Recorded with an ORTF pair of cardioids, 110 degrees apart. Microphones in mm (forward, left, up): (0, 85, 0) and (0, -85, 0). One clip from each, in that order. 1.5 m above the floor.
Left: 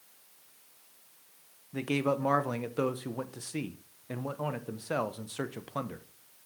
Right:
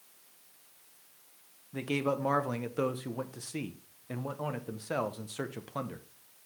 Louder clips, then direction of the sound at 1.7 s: Left 2 dB; 5° left.